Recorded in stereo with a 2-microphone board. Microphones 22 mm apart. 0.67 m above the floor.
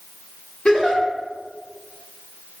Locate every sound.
0.7 s a giggle: 55° left (ahead or behind), 0.9 m